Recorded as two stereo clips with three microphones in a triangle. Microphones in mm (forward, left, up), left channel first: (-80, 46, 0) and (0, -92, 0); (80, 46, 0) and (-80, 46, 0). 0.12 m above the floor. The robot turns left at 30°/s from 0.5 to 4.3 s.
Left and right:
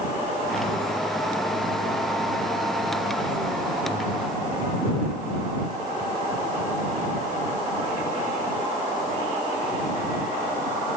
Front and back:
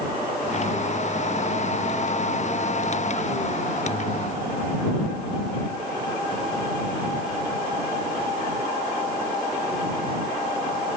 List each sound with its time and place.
Only background noise.